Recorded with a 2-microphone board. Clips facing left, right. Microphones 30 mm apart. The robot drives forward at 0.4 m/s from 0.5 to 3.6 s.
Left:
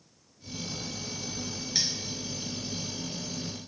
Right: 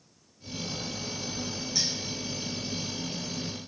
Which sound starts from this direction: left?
Cutlery clinking, at 1.8 s.